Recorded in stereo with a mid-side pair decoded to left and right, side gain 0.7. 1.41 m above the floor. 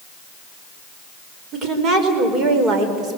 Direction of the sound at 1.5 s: 40° right.